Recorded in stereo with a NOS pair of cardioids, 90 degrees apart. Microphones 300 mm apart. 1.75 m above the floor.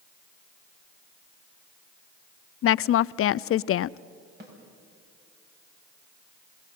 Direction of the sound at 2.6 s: 50° left.